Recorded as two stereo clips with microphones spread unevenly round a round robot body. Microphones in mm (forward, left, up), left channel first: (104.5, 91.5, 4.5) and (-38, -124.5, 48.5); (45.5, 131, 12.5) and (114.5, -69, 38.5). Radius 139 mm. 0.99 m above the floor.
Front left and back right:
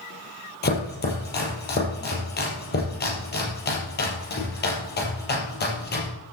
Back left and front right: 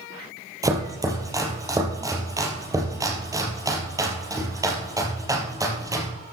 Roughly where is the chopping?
Ahead.